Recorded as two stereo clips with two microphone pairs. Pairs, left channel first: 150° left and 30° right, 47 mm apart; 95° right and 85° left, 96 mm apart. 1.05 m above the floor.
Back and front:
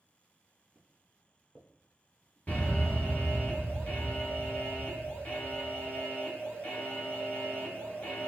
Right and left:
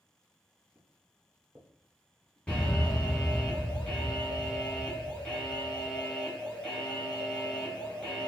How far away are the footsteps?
About 1.4 m.